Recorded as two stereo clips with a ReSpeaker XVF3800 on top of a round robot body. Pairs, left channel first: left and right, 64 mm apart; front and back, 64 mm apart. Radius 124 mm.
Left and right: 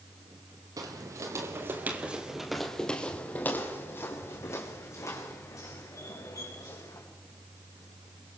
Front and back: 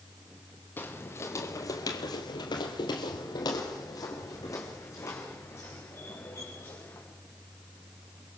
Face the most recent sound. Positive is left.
turn(degrees=60)